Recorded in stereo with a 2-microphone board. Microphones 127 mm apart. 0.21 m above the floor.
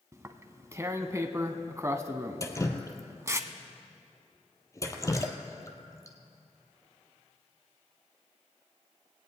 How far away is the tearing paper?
About 0.7 m.